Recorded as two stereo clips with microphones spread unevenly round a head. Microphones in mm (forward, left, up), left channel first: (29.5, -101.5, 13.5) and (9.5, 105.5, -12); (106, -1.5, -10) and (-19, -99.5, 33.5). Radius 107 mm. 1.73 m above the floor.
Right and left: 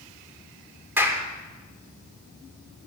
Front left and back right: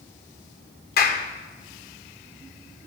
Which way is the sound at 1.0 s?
10° left.